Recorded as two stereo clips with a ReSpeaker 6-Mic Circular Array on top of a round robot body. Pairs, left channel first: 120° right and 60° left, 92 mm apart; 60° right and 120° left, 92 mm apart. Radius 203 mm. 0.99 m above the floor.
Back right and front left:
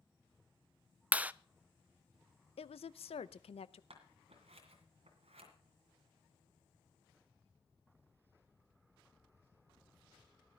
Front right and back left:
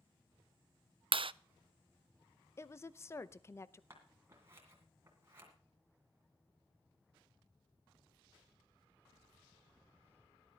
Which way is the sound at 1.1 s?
135° left.